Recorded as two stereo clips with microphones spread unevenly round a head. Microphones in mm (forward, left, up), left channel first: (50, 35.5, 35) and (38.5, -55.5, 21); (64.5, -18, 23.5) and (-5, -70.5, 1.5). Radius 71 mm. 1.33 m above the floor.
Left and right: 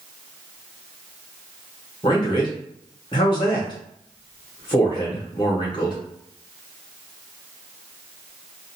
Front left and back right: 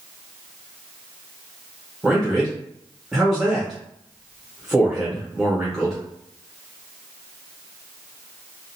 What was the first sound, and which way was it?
A man speaking, 130° left.